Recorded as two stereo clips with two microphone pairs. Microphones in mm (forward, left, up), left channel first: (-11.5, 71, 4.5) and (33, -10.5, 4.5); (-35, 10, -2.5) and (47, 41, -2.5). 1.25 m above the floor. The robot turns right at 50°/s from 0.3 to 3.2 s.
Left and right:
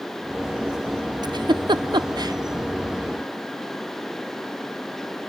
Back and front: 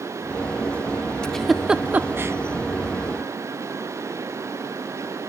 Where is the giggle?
80° right, 0.5 m; by 2.4 s 25° right, 0.5 m.